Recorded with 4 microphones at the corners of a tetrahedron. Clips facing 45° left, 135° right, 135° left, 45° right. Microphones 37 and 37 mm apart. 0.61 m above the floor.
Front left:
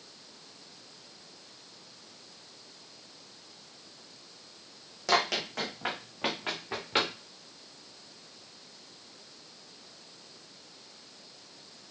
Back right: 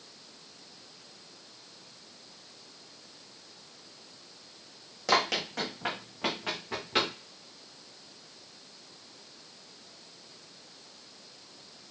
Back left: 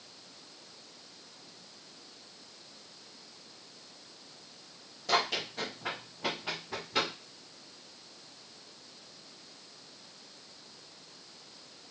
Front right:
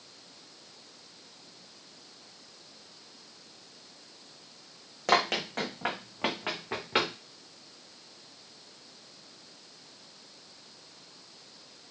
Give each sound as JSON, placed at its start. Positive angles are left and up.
{"t": 5.1, "sound": "running footsteps", "azimuth_deg": -50, "distance_m": 1.6}